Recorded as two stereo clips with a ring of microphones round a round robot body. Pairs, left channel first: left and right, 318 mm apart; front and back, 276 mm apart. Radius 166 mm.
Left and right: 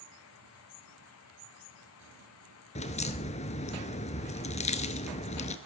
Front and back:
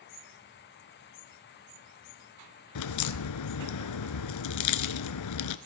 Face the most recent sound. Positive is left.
turn(degrees=20)